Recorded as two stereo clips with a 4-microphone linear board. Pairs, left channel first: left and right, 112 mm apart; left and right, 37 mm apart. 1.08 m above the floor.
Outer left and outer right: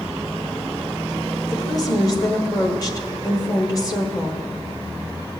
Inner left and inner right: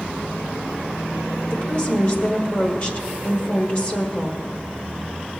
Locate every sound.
1.5 s a woman speaking: 35° left (ahead or behind), 1.3 m